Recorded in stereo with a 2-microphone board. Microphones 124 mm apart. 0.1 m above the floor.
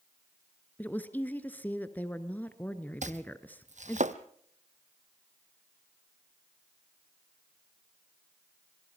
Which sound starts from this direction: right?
Chopping, at 3.0 s.